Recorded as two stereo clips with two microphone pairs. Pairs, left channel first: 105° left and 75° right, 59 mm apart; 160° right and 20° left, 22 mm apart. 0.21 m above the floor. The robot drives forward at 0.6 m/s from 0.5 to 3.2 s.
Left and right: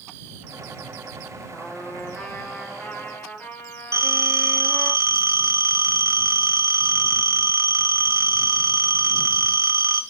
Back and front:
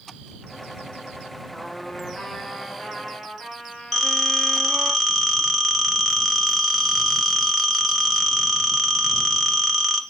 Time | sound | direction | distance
1.5 | a trumpet | 170° left | 3.5 m
3.9 | a phone ringing | 70° right | 1.6 m